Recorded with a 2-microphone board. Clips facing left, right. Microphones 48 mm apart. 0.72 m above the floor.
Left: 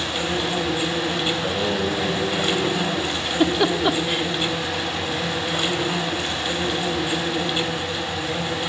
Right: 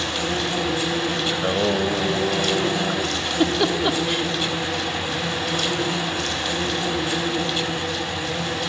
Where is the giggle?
10° left (ahead or behind), 1.6 m.